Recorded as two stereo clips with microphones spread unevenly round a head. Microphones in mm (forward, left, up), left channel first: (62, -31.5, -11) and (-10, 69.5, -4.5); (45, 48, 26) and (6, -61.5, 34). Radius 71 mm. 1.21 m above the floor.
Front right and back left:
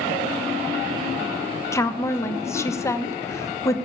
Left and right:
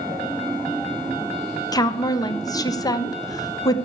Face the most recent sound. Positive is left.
turn(degrees=10)